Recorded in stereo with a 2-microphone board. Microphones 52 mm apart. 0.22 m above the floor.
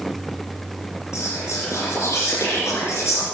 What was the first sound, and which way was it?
Whispering, 60° left (ahead or behind).